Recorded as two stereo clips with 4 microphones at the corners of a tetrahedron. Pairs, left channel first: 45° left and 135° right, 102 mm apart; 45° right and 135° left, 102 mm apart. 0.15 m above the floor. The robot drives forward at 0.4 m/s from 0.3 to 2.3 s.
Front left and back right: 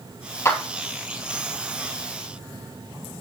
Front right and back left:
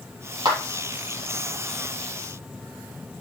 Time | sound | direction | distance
0.5 | a clap | 105° left | 2.5 m